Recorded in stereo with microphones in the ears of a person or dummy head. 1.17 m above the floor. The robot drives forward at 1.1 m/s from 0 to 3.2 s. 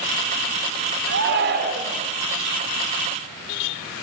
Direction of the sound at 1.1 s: 60° right (ahead or behind).